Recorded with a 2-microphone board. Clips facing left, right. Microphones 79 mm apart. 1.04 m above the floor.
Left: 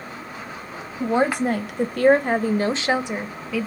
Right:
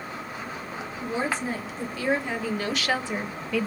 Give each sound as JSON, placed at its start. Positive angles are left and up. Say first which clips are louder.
{"t": 1.0, "sound": "a woman speaking", "louder": "left 9 dB", "side_deg": 65, "distance_m": 1.1}